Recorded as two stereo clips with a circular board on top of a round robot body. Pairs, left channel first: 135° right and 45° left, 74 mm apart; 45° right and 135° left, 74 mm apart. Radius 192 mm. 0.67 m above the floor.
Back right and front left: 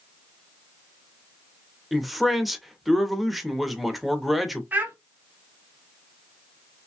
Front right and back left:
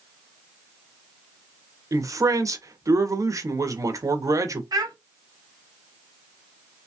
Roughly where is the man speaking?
Behind left.